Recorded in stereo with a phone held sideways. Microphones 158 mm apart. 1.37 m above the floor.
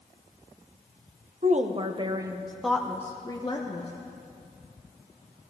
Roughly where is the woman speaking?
Right.